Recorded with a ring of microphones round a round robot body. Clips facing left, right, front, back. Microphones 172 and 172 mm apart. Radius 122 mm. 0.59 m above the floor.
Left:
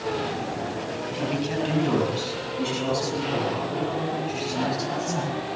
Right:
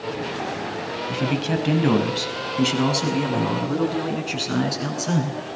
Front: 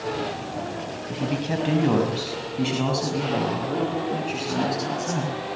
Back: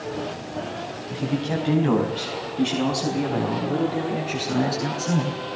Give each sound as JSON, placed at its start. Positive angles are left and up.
{"t": 1.1, "sound": "a man speaking", "azimuth_deg": -75, "distance_m": 4.0}